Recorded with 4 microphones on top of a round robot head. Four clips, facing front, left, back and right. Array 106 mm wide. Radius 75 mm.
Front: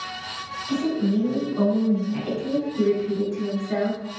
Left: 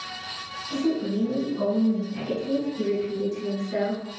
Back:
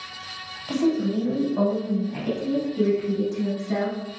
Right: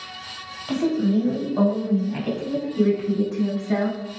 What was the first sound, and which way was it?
A woman speaking, 115° right.